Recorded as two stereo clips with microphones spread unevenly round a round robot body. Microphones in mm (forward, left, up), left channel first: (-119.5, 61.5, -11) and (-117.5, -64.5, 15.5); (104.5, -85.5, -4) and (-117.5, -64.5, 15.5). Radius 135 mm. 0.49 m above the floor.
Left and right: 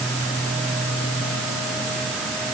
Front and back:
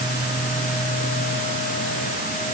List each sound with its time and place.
Only background noise.